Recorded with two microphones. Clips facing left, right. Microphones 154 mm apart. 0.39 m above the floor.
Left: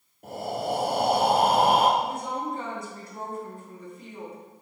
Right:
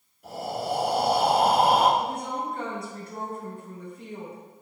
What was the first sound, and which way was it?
Breathing, 50° left (ahead or behind).